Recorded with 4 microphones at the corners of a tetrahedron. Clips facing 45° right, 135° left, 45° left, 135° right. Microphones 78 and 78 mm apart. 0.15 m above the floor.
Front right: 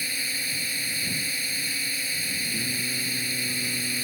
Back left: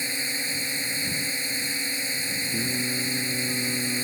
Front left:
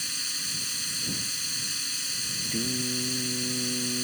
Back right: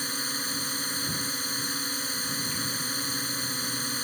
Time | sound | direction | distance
0.0 | a drone | 165° right | ?
2.5 | singing | 70° left | ?